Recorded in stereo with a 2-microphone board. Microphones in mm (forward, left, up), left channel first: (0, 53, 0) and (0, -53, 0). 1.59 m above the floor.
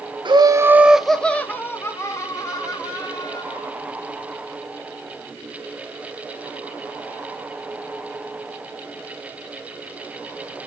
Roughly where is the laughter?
Right.